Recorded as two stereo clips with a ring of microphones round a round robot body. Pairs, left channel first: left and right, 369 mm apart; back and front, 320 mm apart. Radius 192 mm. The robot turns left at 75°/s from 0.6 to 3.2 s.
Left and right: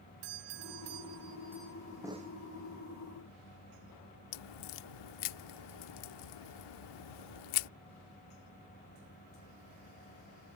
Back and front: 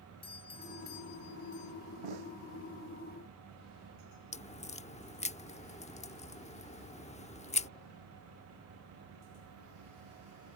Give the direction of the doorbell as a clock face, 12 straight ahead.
3 o'clock.